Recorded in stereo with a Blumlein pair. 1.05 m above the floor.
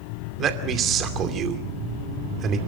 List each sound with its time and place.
0.4 s a man speaking: 30° right, 2.5 m